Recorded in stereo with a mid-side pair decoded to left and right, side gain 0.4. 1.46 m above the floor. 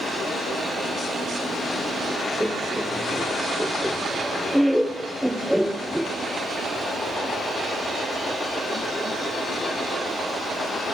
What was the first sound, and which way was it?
Laughter, straight ahead.